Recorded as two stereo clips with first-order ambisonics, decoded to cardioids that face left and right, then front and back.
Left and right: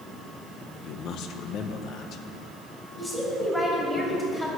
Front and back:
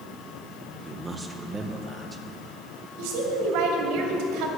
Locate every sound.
0.8 s a man speaking: 105° left, 0.8 m
3.0 s a woman speaking: straight behind, 2.5 m